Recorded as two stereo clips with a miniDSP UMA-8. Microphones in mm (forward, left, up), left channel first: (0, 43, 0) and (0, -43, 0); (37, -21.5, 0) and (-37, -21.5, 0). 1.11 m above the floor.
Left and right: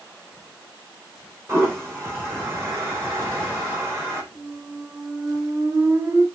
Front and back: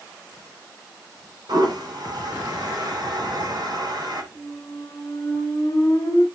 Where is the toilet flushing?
150° right, 4 m.